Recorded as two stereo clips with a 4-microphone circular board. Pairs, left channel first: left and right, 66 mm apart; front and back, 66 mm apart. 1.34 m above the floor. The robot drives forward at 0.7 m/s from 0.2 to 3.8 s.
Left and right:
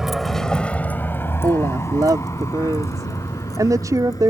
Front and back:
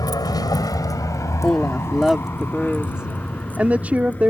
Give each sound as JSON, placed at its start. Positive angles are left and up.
{"t": 0.0, "sound": "a vehicle", "azimuth_deg": -5}
{"t": 1.4, "sound": "a woman speaking", "azimuth_deg": -85}